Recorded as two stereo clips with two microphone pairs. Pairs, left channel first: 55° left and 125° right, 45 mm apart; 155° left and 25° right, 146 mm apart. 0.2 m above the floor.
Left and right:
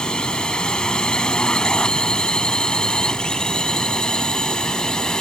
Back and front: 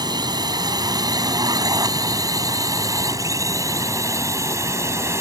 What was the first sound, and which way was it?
A drone, 5° left.